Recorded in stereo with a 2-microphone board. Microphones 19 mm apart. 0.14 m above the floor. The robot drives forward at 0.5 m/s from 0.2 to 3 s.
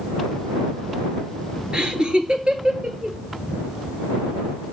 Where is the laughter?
55° right (ahead or behind), 2.5 m; by 3.2 s 45° right (ahead or behind), 2.5 m.